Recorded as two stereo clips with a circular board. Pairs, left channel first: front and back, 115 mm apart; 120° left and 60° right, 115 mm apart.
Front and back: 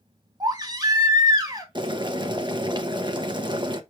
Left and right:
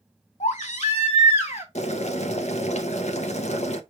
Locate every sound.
0.4 s a baby crying: 125° left, 2.5 m
1.8 s boiling: 130° left, 1.0 m